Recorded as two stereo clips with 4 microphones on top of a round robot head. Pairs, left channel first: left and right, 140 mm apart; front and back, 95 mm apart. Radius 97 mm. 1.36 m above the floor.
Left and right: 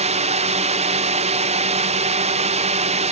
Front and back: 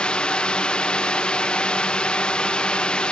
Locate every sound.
0.0 s a drone: 80° right